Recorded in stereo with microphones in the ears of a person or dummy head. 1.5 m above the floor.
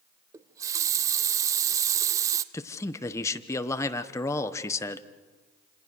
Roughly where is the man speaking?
Centre.